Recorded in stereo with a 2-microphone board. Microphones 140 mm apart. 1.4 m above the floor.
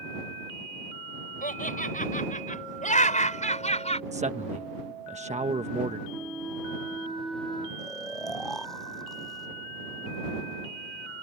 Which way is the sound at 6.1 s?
Centre (ahead or behind).